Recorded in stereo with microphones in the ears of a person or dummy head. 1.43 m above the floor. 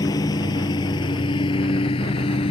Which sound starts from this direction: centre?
A lawn mower, at 0.0 s.